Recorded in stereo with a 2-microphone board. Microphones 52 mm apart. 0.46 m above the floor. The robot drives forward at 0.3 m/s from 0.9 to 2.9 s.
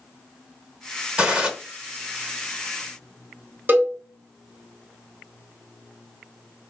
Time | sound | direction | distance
1.2 | a gunshot | 20° right (ahead or behind) | 1.0 m
3.7 | a cowbell | 35° right (ahead or behind) | 1.1 m